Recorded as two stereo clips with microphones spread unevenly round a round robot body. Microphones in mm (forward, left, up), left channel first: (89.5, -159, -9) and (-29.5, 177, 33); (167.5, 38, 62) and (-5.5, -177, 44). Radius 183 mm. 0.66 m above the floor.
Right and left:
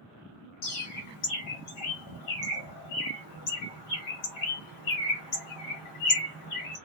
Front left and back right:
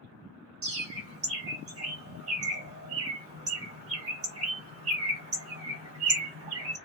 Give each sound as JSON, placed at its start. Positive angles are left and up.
{"t": 0.6, "sound": "a bird", "azimuth_deg": -100, "distance_m": 1.4}